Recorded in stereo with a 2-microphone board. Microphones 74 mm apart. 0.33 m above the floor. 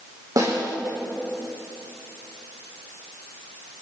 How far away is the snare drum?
About 5.5 m.